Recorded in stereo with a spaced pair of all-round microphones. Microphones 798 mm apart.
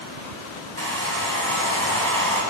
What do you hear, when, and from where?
0.8 s a hair dryer: 15° right (ahead or behind), 7 m